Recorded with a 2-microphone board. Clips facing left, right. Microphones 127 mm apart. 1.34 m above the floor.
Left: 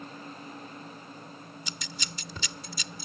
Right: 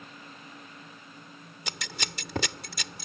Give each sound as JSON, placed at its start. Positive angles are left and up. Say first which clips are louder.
{"t": 1.7, "sound": "scissors", "louder": "right 7 dB", "side_deg": -85}